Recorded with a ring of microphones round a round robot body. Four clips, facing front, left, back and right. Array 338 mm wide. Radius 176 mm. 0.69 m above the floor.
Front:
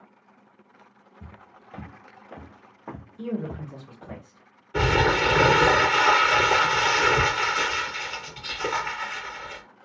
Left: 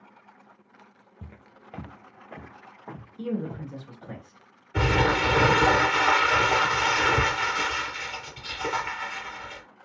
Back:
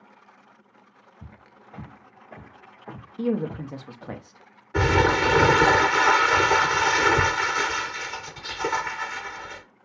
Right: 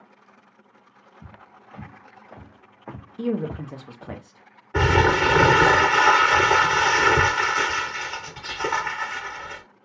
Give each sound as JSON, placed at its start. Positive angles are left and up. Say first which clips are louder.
{"t": 1.2, "sound": "footsteps", "louder": "right 1 dB, front 2 dB", "azimuth_deg": 85, "distance_m": 0.9}
{"t": 3.2, "sound": "a man speaking", "louder": "right 5 dB, back 6 dB", "azimuth_deg": -140, "distance_m": 0.7}
{"t": 4.7, "sound": "crumpling", "louder": "right 4 dB, back 1 dB", "azimuth_deg": -105, "distance_m": 1.8}